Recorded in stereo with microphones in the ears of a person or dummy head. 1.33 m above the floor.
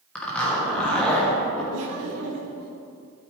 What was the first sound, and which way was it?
A zipper, 5° left (ahead or behind).